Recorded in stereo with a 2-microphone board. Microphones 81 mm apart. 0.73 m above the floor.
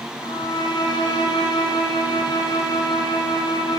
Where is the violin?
75° left (ahead or behind), 4 m.